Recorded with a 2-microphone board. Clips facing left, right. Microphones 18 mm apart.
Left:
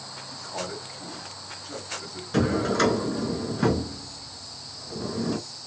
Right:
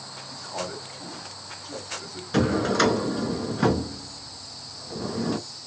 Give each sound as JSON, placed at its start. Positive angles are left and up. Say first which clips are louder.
{"t": 0.3, "sound": "a man speaking", "louder": "right 1 dB", "side_deg": -10, "distance_m": 1.4}
{"t": 2.3, "sound": "a drawer", "louder": "right 1 dB", "side_deg": -20, "distance_m": 0.7}